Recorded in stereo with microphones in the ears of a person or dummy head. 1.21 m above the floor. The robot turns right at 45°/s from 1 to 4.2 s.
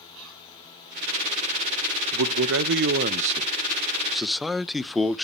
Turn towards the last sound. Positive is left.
turn(degrees=0)